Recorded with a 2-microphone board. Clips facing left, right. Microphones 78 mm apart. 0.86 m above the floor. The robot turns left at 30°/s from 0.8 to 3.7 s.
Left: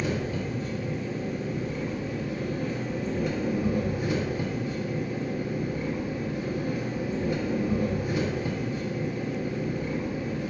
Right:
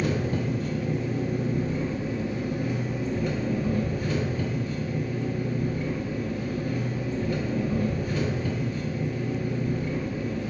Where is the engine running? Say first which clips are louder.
Right 3 dB; 110° right, 0.7 m; by 10.5 s 160° left, 0.7 m.